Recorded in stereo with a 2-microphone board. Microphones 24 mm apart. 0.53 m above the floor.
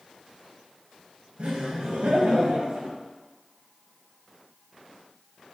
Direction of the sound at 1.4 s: 65° right (ahead or behind).